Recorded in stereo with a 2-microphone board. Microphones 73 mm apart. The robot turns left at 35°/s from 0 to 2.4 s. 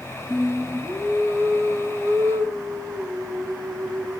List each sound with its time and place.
0.3 s singing: 5° left, 1.5 m; by 4.2 s 65° right, 1.5 m